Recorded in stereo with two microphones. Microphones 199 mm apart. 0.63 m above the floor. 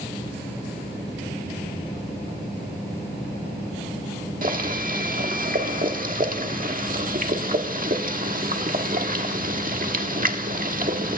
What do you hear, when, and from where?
4.4 s boiling: 45° right (ahead or behind), 1.4 m